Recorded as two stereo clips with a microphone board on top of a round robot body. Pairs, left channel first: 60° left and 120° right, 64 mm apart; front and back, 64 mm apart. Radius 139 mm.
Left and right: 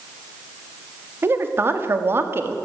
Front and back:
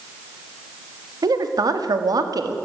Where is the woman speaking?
170° right, 2 m.